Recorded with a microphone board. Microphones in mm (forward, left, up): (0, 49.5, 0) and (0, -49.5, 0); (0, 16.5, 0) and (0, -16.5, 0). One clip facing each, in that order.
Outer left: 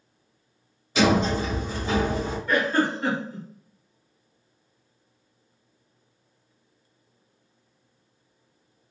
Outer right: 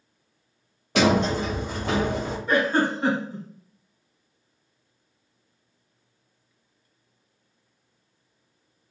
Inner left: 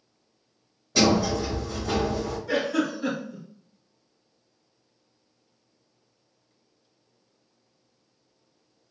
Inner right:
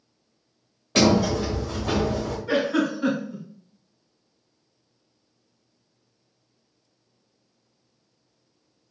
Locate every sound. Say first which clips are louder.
0.9 s a sliding door: even, inner right 2 dB; 60° right (ahead or behind), 0.8 m
2.5 s a giggle: outer right 1 dB, inner right 3 dB; 25° right (ahead or behind), 1.5 m